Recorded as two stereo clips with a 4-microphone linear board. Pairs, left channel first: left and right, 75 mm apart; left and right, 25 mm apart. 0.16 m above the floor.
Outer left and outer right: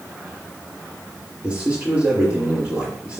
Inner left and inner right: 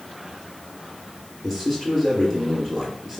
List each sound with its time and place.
1.4 s a man speaking: 10° right (ahead or behind), 3 m